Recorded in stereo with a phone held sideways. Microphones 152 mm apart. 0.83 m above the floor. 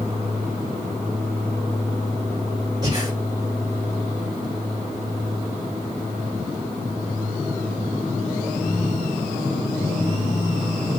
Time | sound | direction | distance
2.8 | breathing | 30° right (ahead or behind) | 2.5 m